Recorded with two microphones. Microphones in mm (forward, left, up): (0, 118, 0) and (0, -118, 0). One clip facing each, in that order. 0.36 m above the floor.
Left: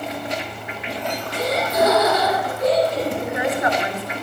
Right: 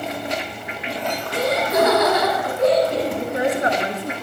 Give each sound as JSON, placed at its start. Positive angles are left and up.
{"t": 1.3, "sound": "laughter", "side_deg": -70, "distance_m": 8.0}
{"t": 3.2, "sound": "a woman speaking", "side_deg": -35, "distance_m": 4.5}